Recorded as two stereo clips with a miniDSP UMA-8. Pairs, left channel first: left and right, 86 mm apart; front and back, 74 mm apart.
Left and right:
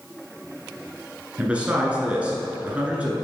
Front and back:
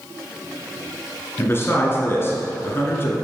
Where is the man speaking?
25° right, 1.4 m.